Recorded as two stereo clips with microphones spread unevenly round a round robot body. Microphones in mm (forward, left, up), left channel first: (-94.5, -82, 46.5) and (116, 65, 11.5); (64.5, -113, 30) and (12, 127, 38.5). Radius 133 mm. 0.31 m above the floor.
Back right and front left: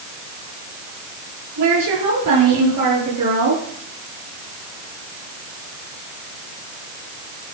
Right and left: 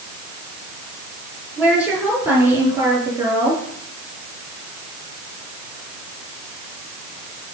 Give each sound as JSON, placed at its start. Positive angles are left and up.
{"t": 1.6, "sound": "a woman speaking", "azimuth_deg": 20, "distance_m": 8.5}